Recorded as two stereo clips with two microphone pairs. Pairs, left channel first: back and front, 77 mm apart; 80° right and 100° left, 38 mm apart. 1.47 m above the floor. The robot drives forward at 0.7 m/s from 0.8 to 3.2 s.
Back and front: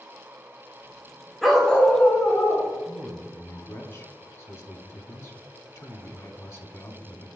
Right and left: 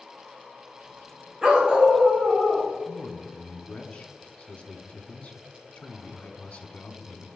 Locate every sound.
1.4 s a dog barking: 85° left, 0.9 m; by 2.7 s 160° left, 1.3 m
2.9 s a man speaking: 115° right, 0.5 m; by 7.3 s 135° right, 0.7 m